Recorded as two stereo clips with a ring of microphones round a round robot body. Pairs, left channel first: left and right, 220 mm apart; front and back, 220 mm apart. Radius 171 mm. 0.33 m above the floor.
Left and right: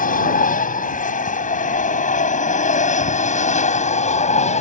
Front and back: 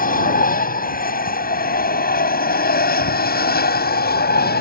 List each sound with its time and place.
0.0 s an aircraft: 45° left; by 4.6 s 35° left